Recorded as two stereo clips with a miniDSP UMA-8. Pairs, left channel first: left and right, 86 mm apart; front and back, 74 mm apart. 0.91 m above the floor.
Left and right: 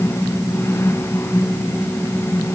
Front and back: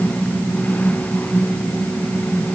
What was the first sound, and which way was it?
Only background noise.